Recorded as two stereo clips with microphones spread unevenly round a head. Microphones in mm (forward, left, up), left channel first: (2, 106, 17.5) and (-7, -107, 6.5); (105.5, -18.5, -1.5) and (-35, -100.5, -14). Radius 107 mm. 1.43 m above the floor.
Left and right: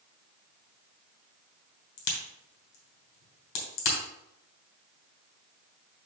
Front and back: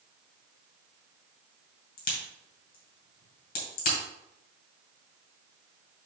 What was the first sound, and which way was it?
A crack, 70° left.